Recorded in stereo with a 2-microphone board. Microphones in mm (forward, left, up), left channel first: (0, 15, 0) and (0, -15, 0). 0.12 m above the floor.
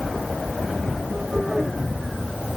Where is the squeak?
No squeak in this recording.